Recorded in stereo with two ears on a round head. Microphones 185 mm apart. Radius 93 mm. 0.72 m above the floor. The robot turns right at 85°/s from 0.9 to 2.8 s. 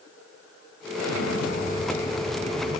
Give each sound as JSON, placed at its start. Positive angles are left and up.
{"t": 0.9, "sound": "an explosion", "azimuth_deg": 75, "distance_m": 2.0}